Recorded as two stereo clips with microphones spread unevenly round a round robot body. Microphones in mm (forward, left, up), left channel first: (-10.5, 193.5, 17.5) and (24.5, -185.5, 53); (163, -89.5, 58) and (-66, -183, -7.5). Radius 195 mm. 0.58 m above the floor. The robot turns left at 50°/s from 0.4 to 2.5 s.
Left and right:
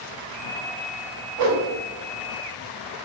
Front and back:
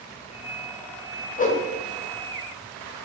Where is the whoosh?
45° right, 0.7 m; by 1.7 s 60° right, 0.7 m.